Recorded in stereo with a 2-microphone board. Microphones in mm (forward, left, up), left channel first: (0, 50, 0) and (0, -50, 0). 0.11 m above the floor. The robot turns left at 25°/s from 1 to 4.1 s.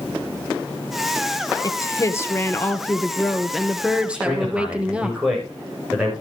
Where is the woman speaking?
50° left, 1.8 m; by 5.1 s 15° right, 1.8 m.